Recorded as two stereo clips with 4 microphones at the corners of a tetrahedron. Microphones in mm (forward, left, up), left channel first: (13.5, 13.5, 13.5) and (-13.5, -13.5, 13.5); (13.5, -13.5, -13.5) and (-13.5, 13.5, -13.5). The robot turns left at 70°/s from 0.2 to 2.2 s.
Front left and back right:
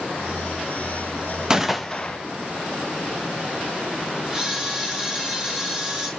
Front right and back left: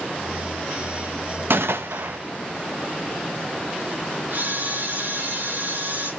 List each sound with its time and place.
1.5 s a gunshot: 155° left, 0.5 m; by 2.2 s 105° left, 0.5 m
4.3 s a camera shutter: 160° left, 2 m